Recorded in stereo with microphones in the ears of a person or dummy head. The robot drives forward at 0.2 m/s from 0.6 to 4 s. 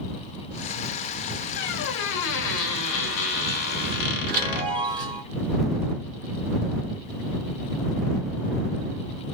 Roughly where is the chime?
Right.